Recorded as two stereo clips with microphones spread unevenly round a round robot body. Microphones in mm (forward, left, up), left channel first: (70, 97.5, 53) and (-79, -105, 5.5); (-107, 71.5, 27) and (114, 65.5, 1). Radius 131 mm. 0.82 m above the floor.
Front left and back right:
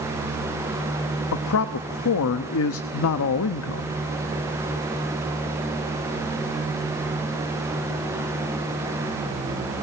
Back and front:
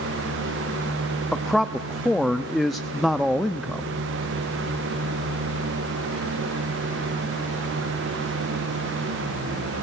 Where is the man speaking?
85° left, 0.9 m.